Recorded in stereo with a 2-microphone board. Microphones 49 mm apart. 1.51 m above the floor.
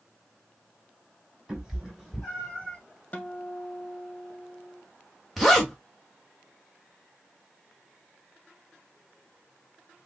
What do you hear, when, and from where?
1.5 s a cat meowing: 5° right (ahead or behind), 2.5 m; by 2.8 s 15° left (ahead or behind), 2 m
3.1 s a guitar: 30° left (ahead or behind), 1.0 m
5.4 s a zipper: 5° left (ahead or behind), 1.4 m